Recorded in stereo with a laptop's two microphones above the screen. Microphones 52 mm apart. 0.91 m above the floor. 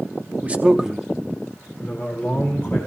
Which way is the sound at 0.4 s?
30° right (ahead or behind).